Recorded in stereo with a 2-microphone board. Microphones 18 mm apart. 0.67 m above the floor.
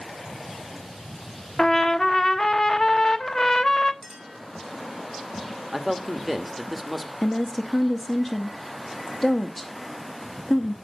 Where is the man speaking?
5° right (ahead or behind), 1.4 m.